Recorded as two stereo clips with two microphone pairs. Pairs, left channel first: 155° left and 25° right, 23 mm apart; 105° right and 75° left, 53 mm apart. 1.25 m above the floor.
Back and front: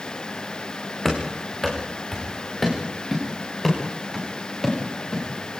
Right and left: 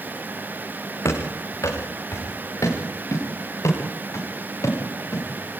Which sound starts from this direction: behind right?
Running footsteps, at 1.1 s.